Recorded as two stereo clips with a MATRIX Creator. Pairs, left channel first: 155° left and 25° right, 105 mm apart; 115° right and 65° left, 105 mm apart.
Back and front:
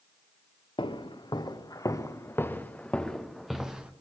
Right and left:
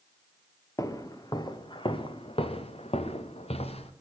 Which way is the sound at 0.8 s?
170° right.